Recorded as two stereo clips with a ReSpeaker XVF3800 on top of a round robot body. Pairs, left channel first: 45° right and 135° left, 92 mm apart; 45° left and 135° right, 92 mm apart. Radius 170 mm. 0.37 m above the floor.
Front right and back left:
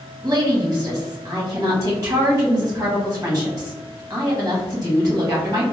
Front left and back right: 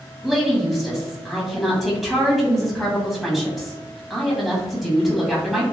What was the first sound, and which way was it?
A woman speaking, 140° left.